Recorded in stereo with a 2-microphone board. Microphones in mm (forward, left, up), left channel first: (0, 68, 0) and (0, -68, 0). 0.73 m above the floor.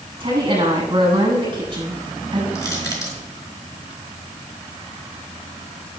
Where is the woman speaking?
35° right (ahead or behind), 7.5 m.